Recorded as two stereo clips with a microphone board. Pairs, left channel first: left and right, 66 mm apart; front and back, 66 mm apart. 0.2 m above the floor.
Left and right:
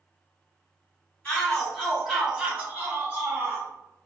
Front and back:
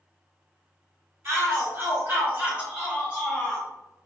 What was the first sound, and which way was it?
A shout, 160° left.